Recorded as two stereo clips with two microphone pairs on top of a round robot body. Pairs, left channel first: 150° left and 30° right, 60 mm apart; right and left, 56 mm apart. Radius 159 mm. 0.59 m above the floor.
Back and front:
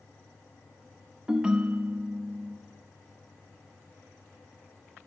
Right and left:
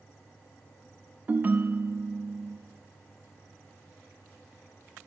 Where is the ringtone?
40° left, 0.6 m.